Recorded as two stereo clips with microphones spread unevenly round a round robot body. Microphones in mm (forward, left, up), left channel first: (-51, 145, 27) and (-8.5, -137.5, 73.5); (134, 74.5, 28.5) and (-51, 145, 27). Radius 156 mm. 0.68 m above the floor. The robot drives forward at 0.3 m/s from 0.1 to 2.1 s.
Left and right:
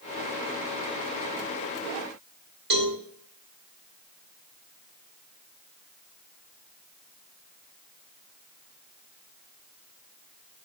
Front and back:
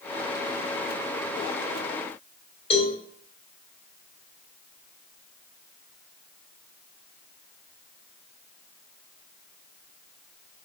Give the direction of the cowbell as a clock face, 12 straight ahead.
3 o'clock.